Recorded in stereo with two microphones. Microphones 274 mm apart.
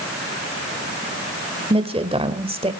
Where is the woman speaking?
20° right (ahead or behind), 1.6 m.